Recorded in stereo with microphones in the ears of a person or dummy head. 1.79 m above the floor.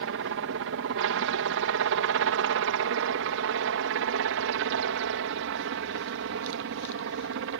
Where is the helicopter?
65° right (ahead or behind).